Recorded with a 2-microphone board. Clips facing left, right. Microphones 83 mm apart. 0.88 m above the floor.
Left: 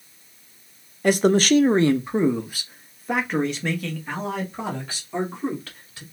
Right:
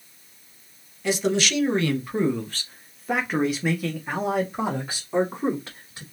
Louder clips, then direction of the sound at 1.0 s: Left 6 dB; 50° left (ahead or behind).